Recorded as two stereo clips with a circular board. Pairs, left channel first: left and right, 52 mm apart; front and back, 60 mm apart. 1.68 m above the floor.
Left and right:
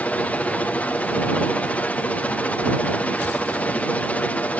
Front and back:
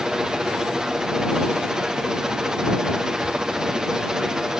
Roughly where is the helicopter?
Left.